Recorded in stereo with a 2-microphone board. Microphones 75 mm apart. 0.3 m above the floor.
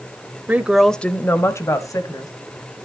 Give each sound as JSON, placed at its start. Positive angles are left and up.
{"t": 0.5, "sound": "a woman speaking", "side_deg": -20, "distance_m": 0.9}